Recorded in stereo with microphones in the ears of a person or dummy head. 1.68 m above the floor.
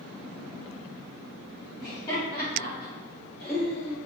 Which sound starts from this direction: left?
Laughter, at 1.8 s.